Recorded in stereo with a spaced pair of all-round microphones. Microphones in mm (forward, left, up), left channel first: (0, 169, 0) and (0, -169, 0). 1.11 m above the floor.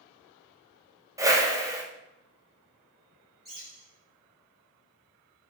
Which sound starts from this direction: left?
A bird, at 3.5 s.